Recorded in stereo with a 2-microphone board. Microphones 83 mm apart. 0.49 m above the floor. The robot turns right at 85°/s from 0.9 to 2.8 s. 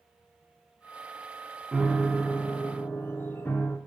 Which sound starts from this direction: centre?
A piano, at 1.7 s.